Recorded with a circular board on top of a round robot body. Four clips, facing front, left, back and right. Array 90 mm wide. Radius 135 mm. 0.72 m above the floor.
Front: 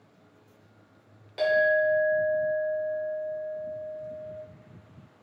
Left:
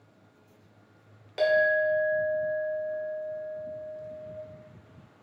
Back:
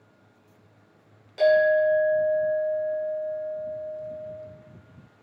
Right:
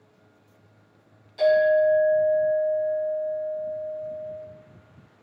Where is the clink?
80° left, 1.2 m.